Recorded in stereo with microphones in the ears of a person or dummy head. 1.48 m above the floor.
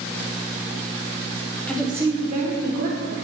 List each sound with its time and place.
1.7 s a woman speaking: 10° left (ahead or behind), 1.3 m; by 3.1 s 65° right (ahead or behind), 2 m